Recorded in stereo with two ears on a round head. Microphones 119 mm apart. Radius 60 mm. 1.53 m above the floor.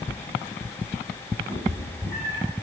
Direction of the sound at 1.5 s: 20° left (ahead or behind).